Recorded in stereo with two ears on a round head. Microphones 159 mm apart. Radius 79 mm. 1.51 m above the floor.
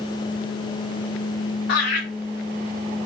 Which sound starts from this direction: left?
Laughter, at 1.7 s.